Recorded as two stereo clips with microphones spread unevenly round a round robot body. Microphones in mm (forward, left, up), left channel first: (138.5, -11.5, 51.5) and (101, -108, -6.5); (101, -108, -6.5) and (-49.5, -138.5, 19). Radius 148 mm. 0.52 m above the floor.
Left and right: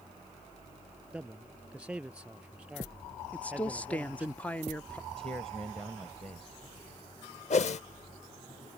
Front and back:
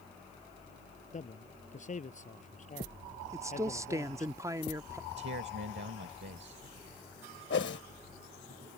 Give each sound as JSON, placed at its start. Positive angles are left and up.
{"t": 1.1, "sound": "a man speaking", "azimuth_deg": -30}
{"t": 3.3, "sound": "a woman speaking", "azimuth_deg": -105}
{"t": 5.1, "sound": "a man speaking", "azimuth_deg": 170}
{"t": 7.5, "sound": "a whoosh", "azimuth_deg": 65}